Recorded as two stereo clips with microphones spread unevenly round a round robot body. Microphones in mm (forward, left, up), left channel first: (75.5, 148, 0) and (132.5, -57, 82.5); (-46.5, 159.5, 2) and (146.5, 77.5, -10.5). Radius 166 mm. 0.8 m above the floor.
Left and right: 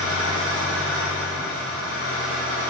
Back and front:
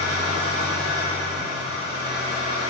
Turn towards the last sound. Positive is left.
turn(degrees=-65)